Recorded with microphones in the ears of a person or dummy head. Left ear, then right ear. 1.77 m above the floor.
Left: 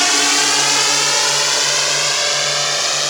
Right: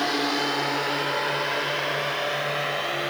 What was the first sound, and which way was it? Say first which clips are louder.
A drone: left 10 dB; 75° left (ahead or behind).